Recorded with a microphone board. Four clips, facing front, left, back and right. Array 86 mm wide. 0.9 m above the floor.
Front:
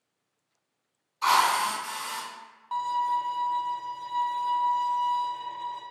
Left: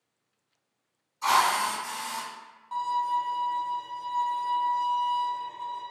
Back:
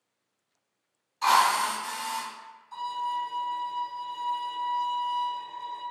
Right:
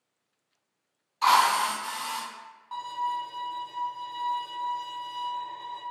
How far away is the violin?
About 0.7 m.